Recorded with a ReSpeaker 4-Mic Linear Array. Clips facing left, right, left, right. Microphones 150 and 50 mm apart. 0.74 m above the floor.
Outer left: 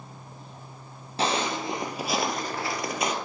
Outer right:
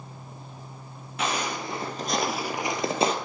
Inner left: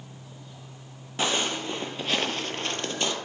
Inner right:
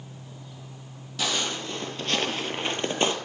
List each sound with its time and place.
1.2 s footsteps: 35° left (ahead or behind), 1.0 m; by 3.1 s 35° right (ahead or behind), 0.9 m